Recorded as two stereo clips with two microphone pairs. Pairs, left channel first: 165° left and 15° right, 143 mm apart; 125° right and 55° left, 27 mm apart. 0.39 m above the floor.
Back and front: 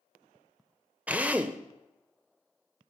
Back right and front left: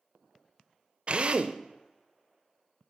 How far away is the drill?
About 0.9 m.